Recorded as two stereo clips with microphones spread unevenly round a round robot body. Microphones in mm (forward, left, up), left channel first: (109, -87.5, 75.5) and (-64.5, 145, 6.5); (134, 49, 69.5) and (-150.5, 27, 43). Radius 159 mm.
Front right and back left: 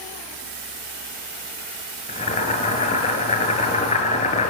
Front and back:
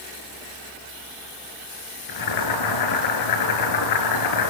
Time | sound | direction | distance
2.1 | boiling | 15° left | 6 m